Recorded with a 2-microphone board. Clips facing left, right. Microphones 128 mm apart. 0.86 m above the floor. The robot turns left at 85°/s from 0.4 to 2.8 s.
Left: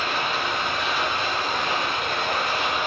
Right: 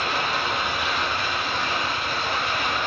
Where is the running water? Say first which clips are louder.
Even; 140° right, 0.7 m; by 2.9 s 15° left, 0.7 m.